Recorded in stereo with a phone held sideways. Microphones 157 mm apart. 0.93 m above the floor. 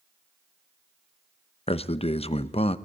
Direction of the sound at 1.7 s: 40° left (ahead or behind).